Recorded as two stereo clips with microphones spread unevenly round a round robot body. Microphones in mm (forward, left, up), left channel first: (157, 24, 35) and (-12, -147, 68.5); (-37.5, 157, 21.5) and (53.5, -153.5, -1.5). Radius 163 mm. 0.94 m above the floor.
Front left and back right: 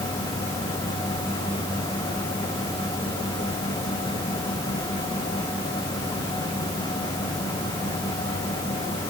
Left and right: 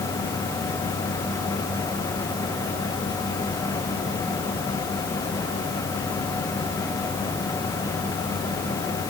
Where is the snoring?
I don't hear snoring.